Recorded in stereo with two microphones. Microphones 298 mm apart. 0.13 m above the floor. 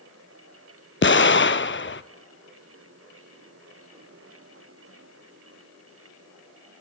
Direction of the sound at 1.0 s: 40° left (ahead or behind).